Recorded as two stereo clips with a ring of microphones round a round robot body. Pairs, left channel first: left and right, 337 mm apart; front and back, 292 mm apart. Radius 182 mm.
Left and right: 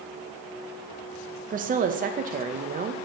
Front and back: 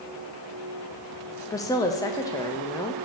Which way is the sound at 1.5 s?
65° right.